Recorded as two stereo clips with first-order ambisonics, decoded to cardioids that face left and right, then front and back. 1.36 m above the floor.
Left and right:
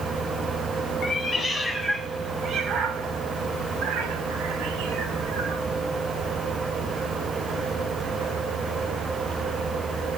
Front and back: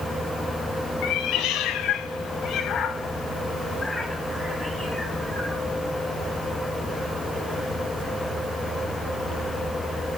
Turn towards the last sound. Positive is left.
turn(degrees=-100)